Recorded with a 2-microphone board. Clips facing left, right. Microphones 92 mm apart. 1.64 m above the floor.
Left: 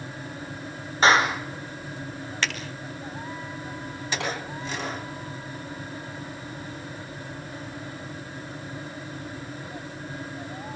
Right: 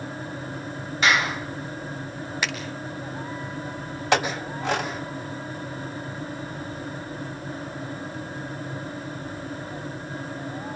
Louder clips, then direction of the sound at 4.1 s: Right 8 dB; 85° right.